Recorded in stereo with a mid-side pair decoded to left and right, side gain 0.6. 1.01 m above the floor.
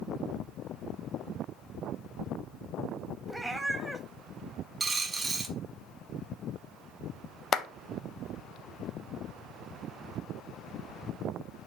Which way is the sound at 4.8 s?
20° right.